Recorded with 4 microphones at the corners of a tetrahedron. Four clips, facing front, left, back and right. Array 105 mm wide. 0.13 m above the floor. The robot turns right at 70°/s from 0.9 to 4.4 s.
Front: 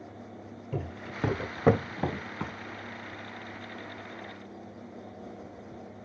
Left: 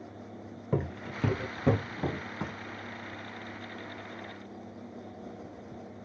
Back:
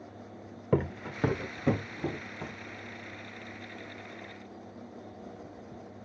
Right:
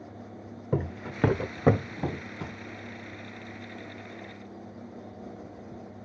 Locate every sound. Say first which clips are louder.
0.7 s footsteps: right 2 dB, back 8 dB; 170° right, 0.7 m; by 2.5 s 40° left, 1.5 m